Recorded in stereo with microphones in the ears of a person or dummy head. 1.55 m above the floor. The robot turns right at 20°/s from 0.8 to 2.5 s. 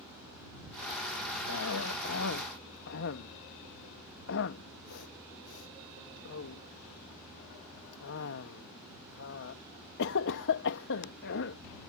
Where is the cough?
85° left; by 11.6 s 65° left (ahead or behind).